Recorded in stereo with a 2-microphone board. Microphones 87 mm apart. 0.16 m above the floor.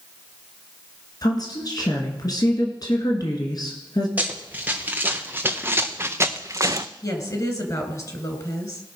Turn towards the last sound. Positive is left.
turn(degrees=40)  # may be behind; listen again after turning